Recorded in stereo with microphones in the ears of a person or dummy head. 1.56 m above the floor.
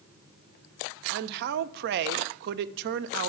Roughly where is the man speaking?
Right.